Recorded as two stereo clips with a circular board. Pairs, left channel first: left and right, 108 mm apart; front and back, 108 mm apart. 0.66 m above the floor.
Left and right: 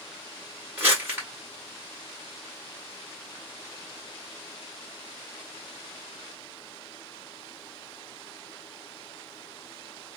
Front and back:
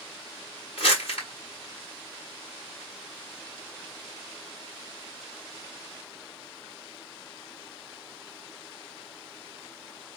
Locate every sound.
0.8 s crumpling: 20° right, 2.0 m